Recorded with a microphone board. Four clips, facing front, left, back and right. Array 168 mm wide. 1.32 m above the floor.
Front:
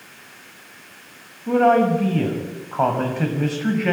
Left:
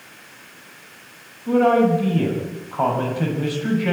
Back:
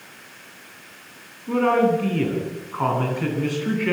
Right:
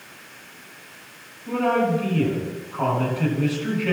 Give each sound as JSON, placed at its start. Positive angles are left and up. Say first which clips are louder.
{"t": 1.5, "sound": "a man speaking", "louder": "left 5 dB, front 3 dB", "azimuth_deg": 30, "distance_m": 6.5}